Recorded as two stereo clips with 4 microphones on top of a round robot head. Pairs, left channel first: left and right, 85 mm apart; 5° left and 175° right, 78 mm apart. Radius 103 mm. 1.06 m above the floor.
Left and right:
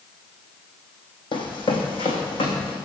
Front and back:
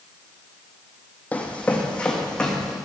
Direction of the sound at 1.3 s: 75° left.